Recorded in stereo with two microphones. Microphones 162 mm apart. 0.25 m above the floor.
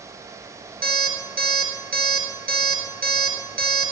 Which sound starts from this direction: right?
An alarm clock, at 0.8 s.